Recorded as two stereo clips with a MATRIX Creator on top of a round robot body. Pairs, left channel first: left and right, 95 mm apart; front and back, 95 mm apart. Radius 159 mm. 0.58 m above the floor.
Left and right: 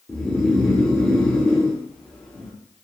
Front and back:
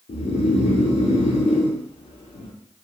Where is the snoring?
5° left, 0.5 m.